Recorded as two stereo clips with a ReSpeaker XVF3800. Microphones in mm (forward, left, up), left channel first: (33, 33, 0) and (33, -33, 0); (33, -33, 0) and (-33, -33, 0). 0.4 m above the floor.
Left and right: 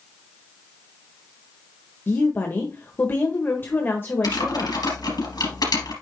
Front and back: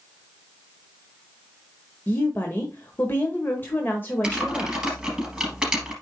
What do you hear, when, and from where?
2.1 s a woman speaking: 45° left, 1.3 m
4.2 s typing on a keyboard: 95° left, 3.5 m